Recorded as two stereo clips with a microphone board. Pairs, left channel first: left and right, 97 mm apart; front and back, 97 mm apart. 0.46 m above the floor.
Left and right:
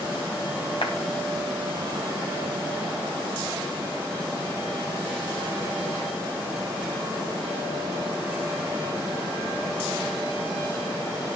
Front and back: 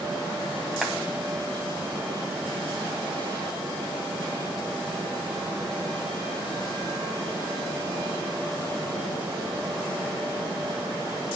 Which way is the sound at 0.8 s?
95° left.